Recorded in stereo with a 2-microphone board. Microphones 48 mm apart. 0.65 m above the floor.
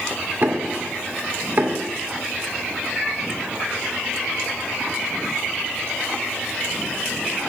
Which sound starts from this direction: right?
Knocking, at 0.4 s.